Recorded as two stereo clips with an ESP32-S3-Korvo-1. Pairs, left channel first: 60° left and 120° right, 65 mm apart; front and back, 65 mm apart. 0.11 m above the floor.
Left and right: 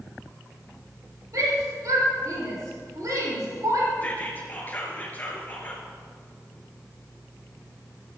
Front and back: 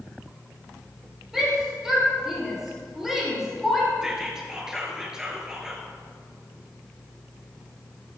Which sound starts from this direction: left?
Whispering, at 4.0 s.